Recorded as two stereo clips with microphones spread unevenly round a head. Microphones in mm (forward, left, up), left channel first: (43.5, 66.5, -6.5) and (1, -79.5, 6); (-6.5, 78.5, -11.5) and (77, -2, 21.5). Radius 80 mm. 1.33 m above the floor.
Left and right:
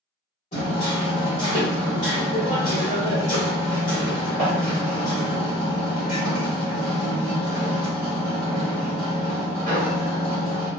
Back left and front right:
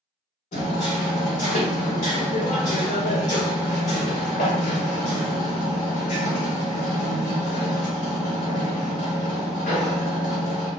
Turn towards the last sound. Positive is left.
turn(degrees=115)